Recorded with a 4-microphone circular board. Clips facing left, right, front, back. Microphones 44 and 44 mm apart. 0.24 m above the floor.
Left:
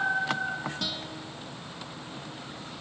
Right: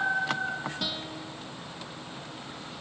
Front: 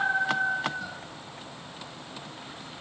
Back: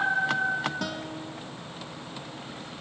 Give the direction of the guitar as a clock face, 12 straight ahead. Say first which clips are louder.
Right 1 dB, back 6 dB; 6 o'clock.